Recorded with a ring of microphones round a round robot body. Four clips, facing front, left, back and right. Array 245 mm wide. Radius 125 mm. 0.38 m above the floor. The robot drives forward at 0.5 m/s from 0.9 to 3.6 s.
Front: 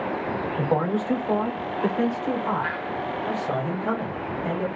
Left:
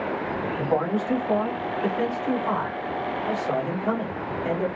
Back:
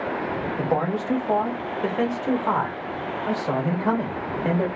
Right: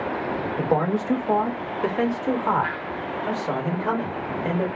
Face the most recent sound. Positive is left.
turn(degrees=-145)